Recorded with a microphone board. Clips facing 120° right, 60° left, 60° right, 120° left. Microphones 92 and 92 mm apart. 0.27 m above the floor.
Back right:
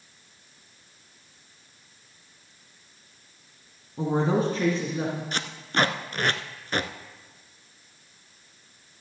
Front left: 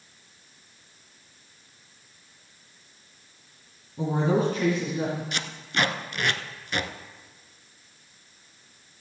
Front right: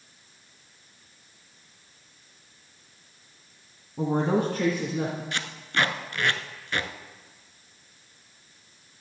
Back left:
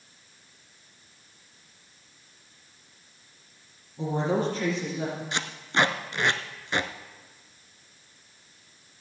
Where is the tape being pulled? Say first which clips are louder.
Back right 3 dB, back left 2 dB; 175° right, 0.7 m.